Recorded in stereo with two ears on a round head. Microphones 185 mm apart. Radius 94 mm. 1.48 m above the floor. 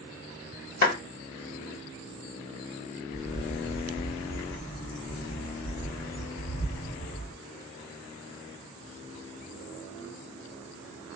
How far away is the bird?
About 1.7 m.